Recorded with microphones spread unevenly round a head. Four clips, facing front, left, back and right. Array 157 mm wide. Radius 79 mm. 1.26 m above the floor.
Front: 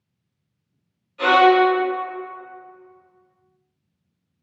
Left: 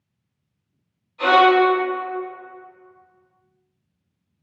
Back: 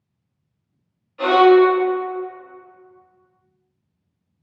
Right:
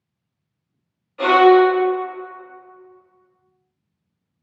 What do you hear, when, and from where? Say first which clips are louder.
1.2 s a violin: right 3 dB, back 2 dB; 90° right, 0.7 m